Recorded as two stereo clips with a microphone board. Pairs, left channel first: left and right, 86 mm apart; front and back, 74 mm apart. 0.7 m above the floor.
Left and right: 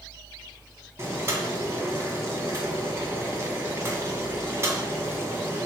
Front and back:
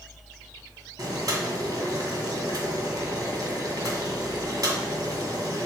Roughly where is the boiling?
Behind right.